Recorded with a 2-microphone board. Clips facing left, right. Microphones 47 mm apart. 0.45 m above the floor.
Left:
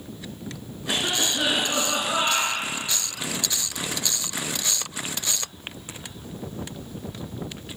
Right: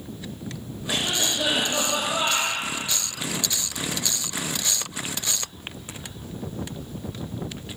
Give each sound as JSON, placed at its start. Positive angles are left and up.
{"t": 0.9, "sound": "a cough", "side_deg": 65, "distance_m": 5.0}